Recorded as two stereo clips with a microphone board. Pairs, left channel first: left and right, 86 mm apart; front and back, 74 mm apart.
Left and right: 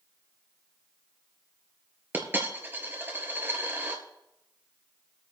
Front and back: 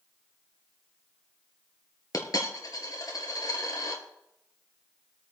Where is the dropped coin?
25° right, 1.8 m.